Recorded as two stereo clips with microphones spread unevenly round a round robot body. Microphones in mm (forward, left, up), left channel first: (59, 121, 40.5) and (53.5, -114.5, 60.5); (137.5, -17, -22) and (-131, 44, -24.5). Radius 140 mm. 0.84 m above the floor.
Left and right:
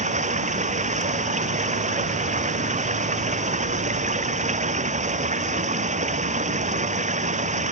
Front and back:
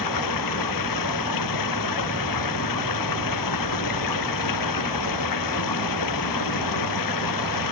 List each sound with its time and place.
0.0 s running water: 30° right